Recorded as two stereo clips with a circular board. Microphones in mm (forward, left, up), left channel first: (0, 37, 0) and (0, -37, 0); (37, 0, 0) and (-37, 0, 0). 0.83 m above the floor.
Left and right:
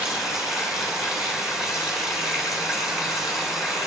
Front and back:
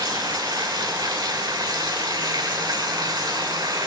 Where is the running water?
175° right, 9 m.